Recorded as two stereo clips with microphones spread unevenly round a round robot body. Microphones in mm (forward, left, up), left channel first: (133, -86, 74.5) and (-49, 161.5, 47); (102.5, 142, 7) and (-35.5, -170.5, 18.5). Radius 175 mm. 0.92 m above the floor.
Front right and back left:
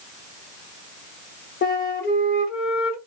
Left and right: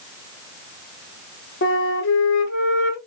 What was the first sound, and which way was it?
A flute, 5° left.